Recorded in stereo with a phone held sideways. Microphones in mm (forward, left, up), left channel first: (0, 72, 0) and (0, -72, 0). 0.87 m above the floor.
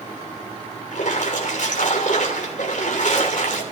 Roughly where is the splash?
Left.